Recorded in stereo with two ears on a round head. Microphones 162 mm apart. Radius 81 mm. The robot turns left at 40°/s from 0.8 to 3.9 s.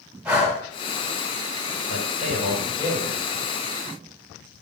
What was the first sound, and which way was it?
Breathing, 5° right (ahead or behind).